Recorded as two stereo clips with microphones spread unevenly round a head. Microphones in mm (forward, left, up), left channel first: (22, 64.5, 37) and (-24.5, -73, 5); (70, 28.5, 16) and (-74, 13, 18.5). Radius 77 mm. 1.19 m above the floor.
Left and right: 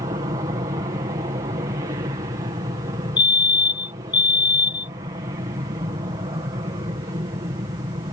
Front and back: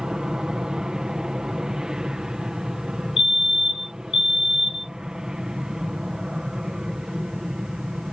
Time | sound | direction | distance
0.0 | an aircraft | 90° right | ?
3.2 | a fire alarm | 10° left | ?